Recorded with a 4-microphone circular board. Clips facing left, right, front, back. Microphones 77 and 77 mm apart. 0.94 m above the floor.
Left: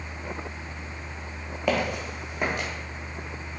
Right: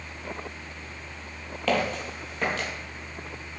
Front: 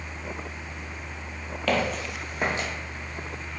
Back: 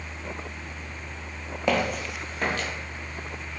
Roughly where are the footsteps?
Behind left.